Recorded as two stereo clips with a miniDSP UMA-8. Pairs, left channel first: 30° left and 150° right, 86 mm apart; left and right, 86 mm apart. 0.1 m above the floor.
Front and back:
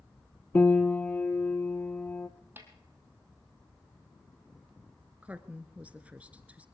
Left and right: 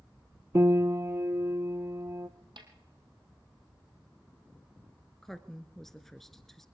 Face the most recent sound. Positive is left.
turn(degrees=170)